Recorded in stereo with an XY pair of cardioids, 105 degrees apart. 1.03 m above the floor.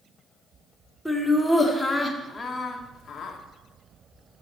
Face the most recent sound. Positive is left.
turn(degrees=50)